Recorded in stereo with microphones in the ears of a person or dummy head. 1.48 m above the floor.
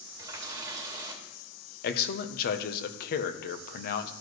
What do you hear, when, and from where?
0.2 s a running tap: 15° right (ahead or behind), 2 m
1.8 s a man speaking: 60° left (ahead or behind), 0.8 m